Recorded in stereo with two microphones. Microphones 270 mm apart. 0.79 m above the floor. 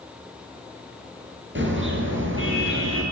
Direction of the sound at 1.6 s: 45° right (ahead or behind).